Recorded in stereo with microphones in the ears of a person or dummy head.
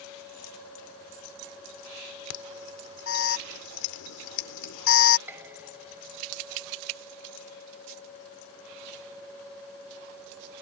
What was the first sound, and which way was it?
An alarm, 70° left (ahead or behind).